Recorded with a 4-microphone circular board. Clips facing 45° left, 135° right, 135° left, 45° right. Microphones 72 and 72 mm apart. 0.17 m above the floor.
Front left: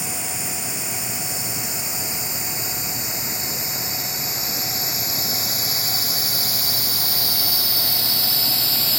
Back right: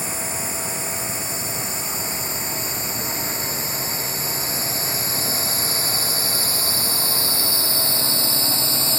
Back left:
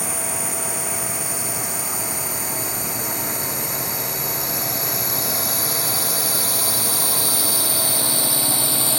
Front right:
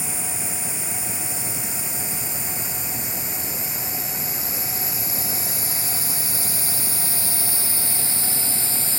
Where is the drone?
170° left; by 9.0 s 165° left.